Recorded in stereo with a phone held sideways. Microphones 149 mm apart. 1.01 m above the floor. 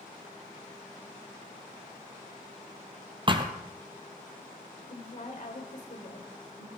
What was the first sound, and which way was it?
A thud, 35° right (ahead or behind).